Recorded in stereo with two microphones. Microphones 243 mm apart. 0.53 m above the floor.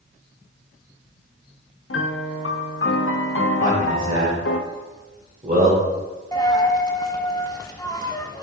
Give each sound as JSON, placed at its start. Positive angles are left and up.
{"t": 1.9, "sound": "a piano", "side_deg": 60, "distance_m": 0.6}
{"t": 3.6, "sound": "a man speaking", "side_deg": -35, "distance_m": 1.8}
{"t": 6.3, "sound": "a dropped coin", "side_deg": 15, "distance_m": 0.6}